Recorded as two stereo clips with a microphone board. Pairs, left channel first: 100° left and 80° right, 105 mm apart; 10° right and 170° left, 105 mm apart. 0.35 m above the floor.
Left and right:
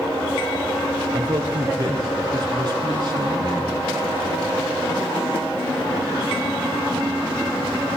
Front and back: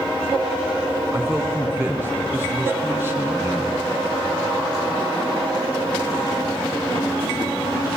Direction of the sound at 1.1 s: 125° right.